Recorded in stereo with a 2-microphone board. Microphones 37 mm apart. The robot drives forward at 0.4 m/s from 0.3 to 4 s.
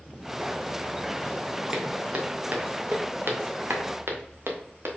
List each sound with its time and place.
1.7 s footsteps: 25° right (ahead or behind), 1.9 m; by 4.9 s 90° right, 2 m